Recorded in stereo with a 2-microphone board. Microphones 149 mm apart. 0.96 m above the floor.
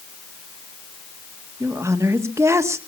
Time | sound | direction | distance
1.6 | a woman speaking | 20° right (ahead or behind) | 1.3 m